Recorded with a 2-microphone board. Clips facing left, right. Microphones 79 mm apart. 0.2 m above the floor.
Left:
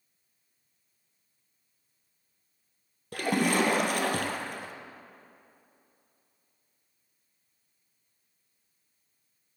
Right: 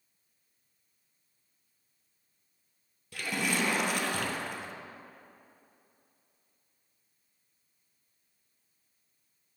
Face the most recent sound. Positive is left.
turn(degrees=55)  # may be behind; listen again after turning